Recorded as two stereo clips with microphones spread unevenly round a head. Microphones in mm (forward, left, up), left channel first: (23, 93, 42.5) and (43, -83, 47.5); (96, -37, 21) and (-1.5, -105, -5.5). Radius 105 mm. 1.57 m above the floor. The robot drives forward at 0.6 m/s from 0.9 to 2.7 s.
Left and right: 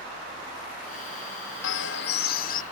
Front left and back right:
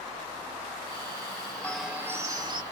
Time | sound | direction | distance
1.6 | a bird | 120° left | ?